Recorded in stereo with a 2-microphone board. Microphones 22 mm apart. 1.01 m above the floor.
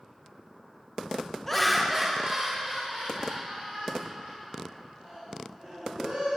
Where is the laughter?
20° left (ahead or behind), 0.7 m; by 6.4 s 70° right (ahead or behind), 5 m.